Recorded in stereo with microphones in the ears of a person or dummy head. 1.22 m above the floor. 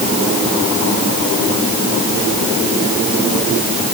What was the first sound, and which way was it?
Only background noise.